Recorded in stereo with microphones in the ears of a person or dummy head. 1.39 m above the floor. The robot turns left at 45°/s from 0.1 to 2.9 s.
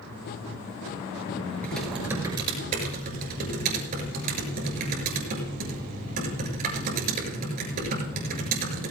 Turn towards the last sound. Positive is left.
turn(degrees=-50)  # may be behind; listen again after turning